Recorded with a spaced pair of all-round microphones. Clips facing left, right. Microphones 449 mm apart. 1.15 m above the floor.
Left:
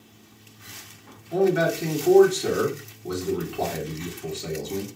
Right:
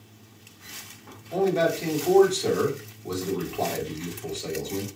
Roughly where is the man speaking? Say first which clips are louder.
Left 2 dB; left.